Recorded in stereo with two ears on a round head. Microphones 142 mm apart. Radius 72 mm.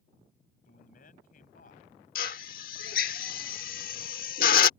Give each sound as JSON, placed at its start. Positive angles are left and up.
{"t": 0.7, "sound": "a man speaking", "side_deg": 60}
{"t": 2.1, "sound": "a drill", "side_deg": 55}